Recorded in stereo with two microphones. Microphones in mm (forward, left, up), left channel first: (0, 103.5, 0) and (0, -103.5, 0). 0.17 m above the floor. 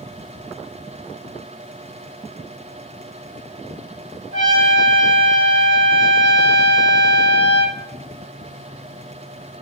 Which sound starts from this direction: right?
A trumpet, at 4.3 s.